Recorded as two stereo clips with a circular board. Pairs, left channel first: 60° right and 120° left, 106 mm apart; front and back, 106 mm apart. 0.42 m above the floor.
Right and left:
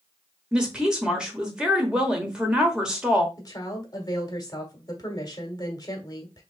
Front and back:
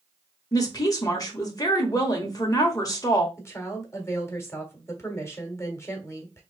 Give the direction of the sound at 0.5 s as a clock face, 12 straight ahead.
11 o'clock.